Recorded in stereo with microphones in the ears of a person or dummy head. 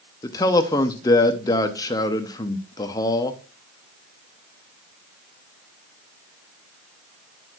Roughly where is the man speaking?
Centre.